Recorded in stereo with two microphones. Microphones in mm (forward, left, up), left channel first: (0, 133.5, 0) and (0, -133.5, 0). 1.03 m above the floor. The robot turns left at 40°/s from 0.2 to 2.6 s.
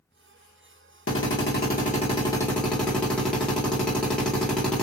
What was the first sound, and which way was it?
A drill, 65° left.